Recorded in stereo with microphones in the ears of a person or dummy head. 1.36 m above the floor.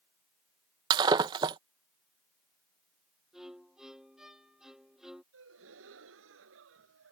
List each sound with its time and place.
0.9 s breaking glass: 25° right (ahead or behind)
3.3 s a violin: 5° right (ahead or behind)
5.3 s a gasp: 80° right